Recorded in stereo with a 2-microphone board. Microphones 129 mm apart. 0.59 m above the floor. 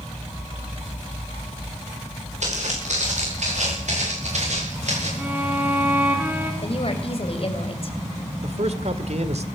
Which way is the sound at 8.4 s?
55° right (ahead or behind).